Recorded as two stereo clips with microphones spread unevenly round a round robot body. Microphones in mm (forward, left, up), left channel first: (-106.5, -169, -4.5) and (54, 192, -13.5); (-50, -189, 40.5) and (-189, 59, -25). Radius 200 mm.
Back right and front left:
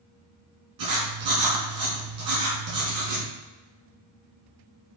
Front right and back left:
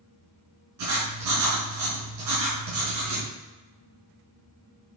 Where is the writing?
105° left, 4 m.